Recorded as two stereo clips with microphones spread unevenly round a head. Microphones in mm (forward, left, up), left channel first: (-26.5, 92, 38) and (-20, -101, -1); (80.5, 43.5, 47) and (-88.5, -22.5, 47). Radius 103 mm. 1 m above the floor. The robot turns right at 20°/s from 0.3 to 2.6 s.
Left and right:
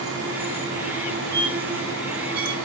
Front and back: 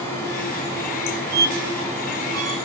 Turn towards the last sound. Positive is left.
turn(degrees=-115)